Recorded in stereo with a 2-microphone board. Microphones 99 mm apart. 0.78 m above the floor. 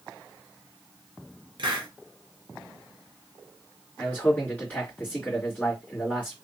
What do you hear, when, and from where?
1.6 s a hiss: 55° right (ahead or behind), 0.9 m
4.0 s a man speaking: 15° left (ahead or behind), 1.7 m